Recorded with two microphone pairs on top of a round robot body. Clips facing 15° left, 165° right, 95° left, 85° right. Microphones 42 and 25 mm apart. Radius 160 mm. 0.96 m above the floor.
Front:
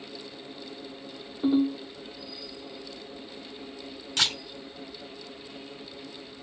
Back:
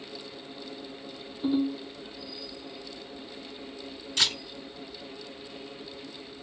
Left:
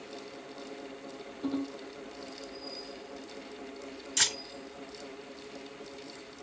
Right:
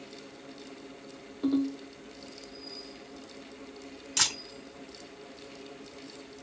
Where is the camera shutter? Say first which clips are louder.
Front 1 dB, right 1 dB; 20° right, 2.5 m.